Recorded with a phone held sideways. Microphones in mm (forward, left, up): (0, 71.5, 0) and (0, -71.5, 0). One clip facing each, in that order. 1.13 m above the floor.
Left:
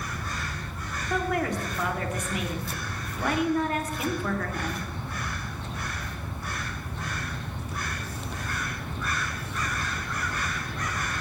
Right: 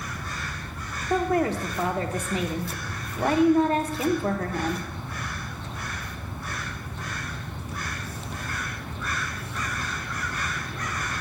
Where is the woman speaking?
30° right (ahead or behind), 0.7 m.